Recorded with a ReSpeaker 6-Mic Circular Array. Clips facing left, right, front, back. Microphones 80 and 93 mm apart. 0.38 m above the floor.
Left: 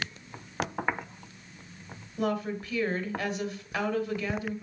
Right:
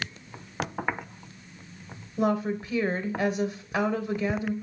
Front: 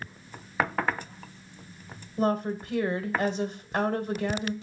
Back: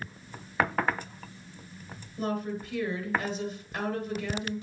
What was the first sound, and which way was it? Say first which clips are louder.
A woman speaking: right 4 dB, front 5 dB; 45° right.